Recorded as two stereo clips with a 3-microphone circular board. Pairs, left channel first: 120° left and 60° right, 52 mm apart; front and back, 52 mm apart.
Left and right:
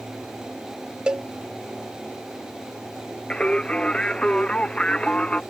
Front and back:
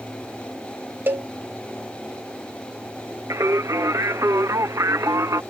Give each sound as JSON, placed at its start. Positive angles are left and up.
{"t": 1.1, "sound": "a cowbell", "azimuth_deg": -130}
{"t": 3.3, "sound": "singing", "azimuth_deg": -170}